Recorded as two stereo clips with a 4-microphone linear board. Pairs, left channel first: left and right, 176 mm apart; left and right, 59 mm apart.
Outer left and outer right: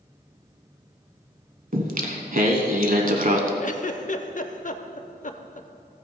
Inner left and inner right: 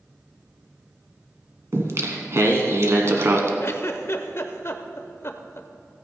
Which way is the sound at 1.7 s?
50° right (ahead or behind).